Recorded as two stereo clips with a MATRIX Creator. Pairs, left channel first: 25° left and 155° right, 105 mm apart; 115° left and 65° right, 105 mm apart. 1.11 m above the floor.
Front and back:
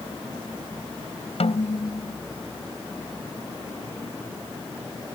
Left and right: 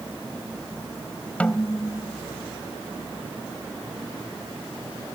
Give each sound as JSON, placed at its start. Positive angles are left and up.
{"t": 1.4, "sound": "a snare drum", "azimuth_deg": 35}